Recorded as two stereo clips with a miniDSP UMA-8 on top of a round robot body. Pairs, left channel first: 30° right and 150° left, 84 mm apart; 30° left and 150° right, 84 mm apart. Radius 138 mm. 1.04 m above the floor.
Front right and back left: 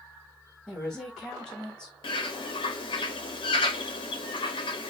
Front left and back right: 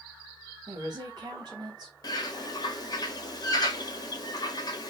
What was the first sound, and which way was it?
A woman speaking, 110° right.